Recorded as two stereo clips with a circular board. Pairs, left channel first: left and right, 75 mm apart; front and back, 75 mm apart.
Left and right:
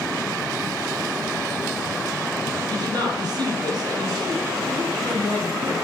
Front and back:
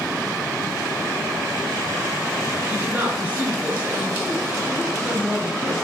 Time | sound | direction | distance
2.7 | a woman speaking | 110° right | 3.5 m